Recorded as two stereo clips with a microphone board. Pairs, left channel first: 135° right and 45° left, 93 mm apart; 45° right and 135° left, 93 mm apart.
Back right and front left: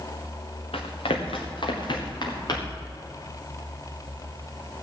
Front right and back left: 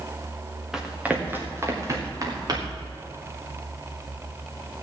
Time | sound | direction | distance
0.7 | running footsteps | 140° right | 2 m